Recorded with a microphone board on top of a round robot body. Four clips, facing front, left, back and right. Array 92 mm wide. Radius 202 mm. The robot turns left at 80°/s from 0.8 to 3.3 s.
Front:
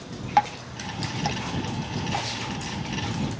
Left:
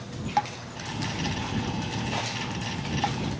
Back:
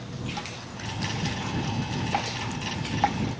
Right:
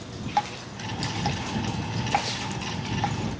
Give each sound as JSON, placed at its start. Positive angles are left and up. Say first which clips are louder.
{"t": 0.4, "sound": "dripping", "louder": "right 1 dB, front 14 dB", "azimuth_deg": 0}